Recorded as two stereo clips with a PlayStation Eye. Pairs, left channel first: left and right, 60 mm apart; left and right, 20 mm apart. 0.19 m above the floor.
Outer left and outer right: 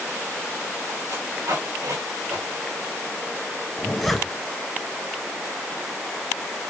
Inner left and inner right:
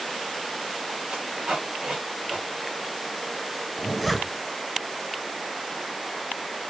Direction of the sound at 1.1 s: 90° right.